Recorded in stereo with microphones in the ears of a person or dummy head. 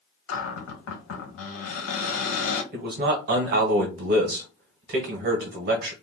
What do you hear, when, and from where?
0.3 s a cupboard door: 80° left, 1.2 m
2.7 s a man speaking: 50° right (ahead or behind), 0.9 m